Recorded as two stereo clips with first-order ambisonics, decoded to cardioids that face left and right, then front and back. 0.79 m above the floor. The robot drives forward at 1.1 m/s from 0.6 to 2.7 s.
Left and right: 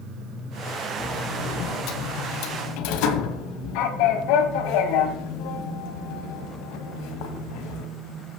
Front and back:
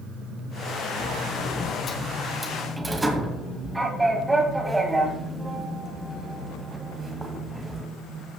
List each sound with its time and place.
1.0 s a sliding door: 40° left, 2 m; by 7.9 s 100° left, 1.5 m